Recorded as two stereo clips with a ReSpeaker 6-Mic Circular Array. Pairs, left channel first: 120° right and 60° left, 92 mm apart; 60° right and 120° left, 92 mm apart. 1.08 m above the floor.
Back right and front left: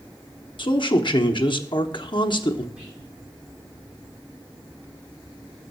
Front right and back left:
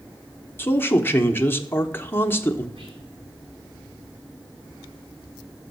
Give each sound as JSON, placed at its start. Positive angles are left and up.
{"t": 0.6, "sound": "a man speaking", "azimuth_deg": -125, "distance_m": 0.9}
{"t": 2.8, "sound": "whispering", "azimuth_deg": 140, "distance_m": 6.0}